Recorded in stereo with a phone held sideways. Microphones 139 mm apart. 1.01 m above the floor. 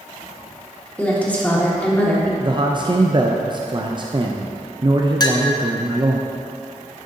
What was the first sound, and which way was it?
A woman speaking, 10° left (ahead or behind).